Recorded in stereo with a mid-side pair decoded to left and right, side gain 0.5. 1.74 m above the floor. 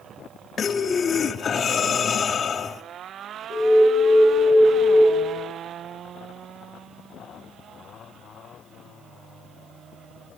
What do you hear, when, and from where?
0.6 s breathing: 45° left, 0.7 m
3.5 s an alarm: 40° right, 4.5 m